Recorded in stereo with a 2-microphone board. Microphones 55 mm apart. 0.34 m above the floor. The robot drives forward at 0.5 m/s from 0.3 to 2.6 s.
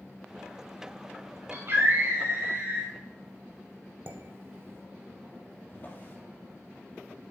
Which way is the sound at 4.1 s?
50° right (ahead or behind).